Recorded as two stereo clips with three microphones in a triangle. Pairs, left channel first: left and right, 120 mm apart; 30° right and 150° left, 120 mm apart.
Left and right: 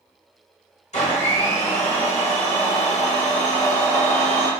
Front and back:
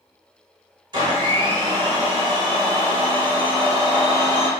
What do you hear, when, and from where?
0.9 s a blender: 100° left, 1.0 m